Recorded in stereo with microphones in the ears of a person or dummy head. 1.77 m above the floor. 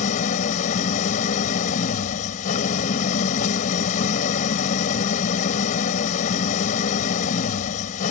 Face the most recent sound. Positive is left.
turn(degrees=45)  # may be behind; listen again after turning